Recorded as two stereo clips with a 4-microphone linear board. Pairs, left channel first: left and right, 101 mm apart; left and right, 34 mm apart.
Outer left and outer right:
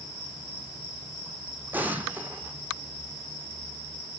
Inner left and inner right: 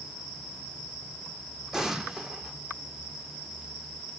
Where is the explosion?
20° right (ahead or behind), 0.9 m.